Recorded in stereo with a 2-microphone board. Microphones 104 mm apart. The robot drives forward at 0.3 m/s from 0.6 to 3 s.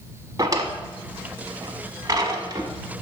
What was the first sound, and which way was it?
A drawer, 35° right (ahead or behind).